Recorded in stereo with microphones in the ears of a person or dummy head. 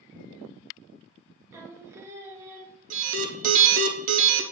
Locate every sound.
1.5 s singing: 15° right (ahead or behind), 0.9 m
2.9 s an alarm: 45° right (ahead or behind), 0.8 m